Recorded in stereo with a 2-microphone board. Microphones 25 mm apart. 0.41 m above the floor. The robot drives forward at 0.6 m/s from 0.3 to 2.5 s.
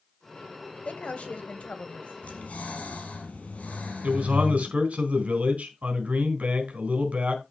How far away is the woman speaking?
About 2.5 m.